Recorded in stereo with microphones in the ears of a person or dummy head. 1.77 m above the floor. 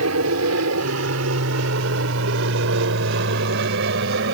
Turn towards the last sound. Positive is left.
turn(degrees=-60)  # may be behind; listen again after turning